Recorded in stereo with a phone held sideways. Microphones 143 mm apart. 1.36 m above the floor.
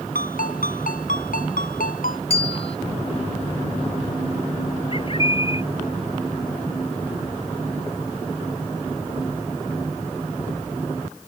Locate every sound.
0.1 s a ringtone: 75° left (ahead or behind)
2.3 s a bell: 45° left (ahead or behind)
4.9 s a bird: 40° left (ahead or behind)